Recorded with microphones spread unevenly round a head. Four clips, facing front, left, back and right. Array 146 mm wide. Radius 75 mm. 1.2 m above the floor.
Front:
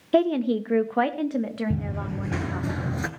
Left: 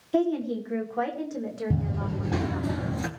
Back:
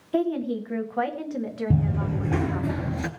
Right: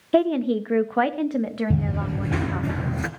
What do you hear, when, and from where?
0.1 s a woman speaking: 45° right, 1.4 m; by 2.7 s 55° right, 3 m
1.7 s running footsteps: 175° right, 1.5 m; by 3.1 s 45° right, 1.2 m